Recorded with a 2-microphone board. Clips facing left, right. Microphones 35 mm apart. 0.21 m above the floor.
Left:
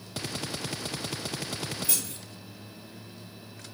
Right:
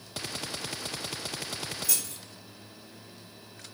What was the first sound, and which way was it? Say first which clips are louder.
Keys jangling: left 1 dB; 35° left (ahead or behind).